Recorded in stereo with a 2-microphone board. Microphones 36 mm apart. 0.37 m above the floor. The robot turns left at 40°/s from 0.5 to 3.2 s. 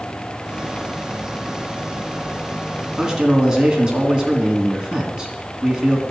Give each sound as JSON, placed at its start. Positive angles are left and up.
{"t": 3.0, "sound": "a man speaking", "side_deg": -15, "distance_m": 3.0}